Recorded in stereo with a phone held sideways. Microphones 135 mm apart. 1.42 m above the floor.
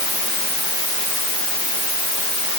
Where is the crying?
I don't hear crying.